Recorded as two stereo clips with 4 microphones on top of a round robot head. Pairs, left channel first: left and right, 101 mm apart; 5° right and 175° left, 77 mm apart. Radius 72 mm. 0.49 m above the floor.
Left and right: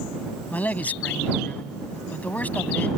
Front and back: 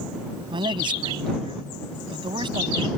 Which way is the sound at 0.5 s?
165° left.